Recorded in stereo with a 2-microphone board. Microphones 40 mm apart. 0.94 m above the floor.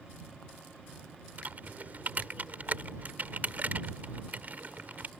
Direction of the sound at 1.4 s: 50° right (ahead or behind).